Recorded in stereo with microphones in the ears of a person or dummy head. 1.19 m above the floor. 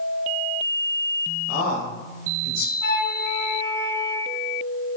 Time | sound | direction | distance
1.5 | a man speaking | 50° left (ahead or behind) | 1.1 m
2.8 | a flute | 60° left (ahead or behind) | 0.9 m